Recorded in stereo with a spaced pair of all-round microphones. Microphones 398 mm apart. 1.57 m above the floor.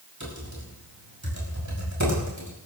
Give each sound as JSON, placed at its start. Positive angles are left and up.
{"t": 0.2, "sound": "typing on a keyboard", "side_deg": -45, "distance_m": 5.0}